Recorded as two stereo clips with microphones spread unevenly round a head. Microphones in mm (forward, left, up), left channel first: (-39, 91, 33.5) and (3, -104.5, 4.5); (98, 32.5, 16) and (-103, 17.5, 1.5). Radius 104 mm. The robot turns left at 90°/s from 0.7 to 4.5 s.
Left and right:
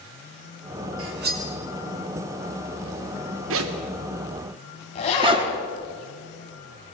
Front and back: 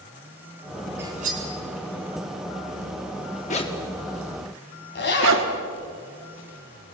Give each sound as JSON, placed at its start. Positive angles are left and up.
{"t": 1.0, "sound": "cutlery clinking", "azimuth_deg": -95, "distance_m": 2.5}
{"t": 3.5, "sound": "a zipper", "azimuth_deg": -55, "distance_m": 1.5}
{"t": 5.0, "sound": "a zipper", "azimuth_deg": 40, "distance_m": 3.5}